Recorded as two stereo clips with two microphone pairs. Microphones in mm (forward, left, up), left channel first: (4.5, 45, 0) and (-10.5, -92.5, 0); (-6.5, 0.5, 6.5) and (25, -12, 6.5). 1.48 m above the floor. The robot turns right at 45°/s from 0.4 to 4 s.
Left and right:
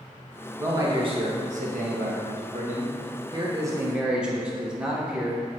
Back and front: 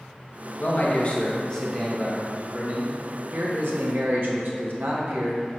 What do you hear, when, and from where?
0.6 s a man speaking: 165° right, 1.3 m; by 5.4 s 15° right, 1.3 m